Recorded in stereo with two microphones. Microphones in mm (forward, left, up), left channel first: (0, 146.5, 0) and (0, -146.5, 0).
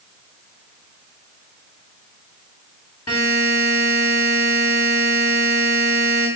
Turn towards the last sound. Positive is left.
turn(degrees=65)  # may be behind; listen again after turning